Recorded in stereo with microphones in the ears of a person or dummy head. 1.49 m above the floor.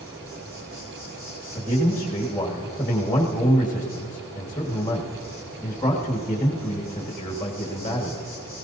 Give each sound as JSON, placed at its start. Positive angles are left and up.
{"t": 0.0, "sound": "an insect", "side_deg": -20, "distance_m": 4.5}
{"t": 1.6, "sound": "a man speaking", "side_deg": 15, "distance_m": 1.6}